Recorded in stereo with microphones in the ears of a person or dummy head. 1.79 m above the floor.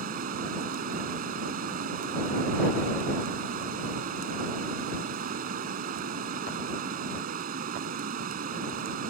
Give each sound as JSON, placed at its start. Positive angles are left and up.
{"t": 0.0, "sound": "running water", "side_deg": -50}